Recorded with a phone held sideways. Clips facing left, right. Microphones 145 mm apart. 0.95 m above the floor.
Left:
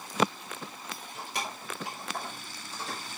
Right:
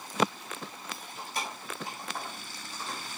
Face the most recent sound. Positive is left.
turn(degrees=85)